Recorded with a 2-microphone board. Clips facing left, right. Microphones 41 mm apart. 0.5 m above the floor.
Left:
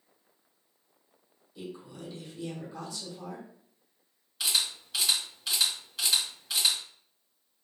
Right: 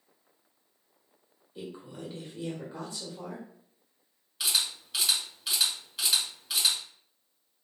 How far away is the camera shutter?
About 2.5 m.